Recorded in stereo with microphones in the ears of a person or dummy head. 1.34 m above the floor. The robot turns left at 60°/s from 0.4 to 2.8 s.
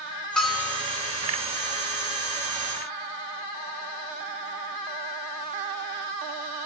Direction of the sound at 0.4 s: 5° left (ahead or behind).